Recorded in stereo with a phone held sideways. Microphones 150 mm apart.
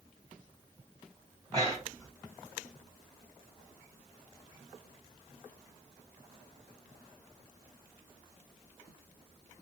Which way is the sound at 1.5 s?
25° right (ahead or behind).